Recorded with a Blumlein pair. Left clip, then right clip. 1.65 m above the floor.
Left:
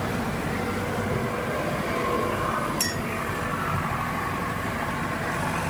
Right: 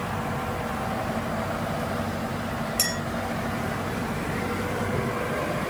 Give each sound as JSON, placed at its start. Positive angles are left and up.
{"t": 2.8, "sound": "a clink", "azimuth_deg": -50, "distance_m": 8.0}